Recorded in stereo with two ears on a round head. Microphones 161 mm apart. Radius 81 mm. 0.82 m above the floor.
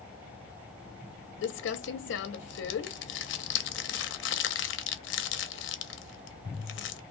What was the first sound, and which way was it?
Crumpling, 65° left (ahead or behind).